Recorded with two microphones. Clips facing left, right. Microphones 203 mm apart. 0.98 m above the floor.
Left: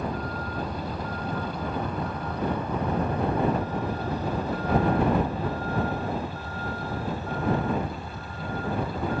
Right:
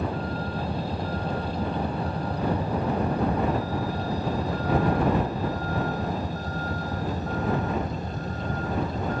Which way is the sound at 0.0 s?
30° right (ahead or behind).